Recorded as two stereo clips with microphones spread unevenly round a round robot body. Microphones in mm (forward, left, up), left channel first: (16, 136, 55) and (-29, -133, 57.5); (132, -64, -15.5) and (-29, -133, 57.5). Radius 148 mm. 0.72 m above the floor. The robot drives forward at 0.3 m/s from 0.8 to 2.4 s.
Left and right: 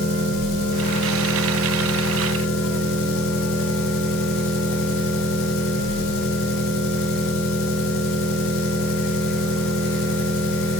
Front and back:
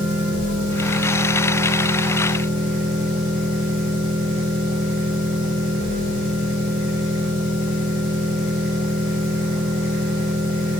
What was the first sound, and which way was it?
An engine running, 70° left.